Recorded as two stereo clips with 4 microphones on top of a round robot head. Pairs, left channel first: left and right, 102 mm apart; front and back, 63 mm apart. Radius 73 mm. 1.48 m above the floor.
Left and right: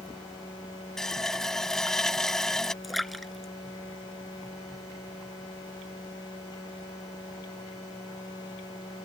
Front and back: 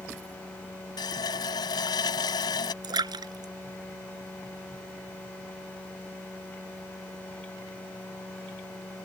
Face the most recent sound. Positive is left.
turn(degrees=180)